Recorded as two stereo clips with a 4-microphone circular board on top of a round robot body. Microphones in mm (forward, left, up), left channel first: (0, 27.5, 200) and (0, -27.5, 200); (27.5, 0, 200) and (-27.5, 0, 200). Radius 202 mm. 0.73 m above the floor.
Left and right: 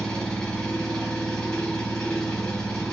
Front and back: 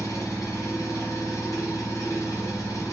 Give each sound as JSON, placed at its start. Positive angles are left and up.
{"t": 0.0, "sound": "an engine running", "azimuth_deg": 10, "distance_m": 1.7}